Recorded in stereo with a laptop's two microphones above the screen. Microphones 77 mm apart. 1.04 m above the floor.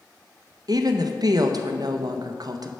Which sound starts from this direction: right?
A woman speaking, at 0.7 s.